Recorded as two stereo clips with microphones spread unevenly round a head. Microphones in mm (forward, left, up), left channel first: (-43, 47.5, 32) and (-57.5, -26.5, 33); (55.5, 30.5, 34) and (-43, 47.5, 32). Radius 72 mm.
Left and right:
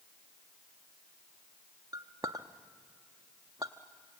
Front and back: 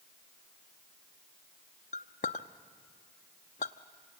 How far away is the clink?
About 0.6 m.